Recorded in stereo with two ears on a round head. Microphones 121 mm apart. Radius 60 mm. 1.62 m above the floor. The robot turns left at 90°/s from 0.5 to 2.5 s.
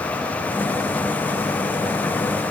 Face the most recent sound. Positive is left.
No sound to turn to.